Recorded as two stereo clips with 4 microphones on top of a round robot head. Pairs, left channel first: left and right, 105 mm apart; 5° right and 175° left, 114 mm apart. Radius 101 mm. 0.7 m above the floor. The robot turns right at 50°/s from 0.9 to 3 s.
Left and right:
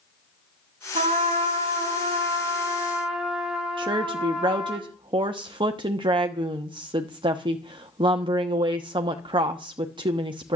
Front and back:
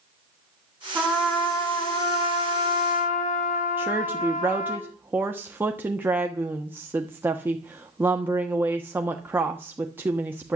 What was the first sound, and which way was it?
A trumpet, 110° right.